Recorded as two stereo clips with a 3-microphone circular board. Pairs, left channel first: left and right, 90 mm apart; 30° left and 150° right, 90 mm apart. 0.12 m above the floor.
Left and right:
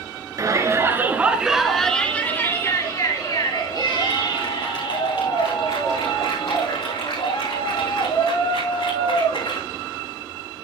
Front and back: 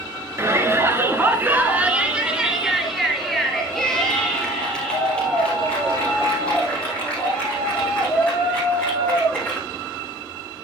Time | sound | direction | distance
0.4 | a shout | 105° right | 1.9 m